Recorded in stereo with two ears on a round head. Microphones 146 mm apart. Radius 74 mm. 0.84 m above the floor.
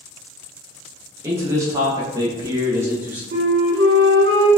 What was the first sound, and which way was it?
A man speaking, 15° right (ahead or behind).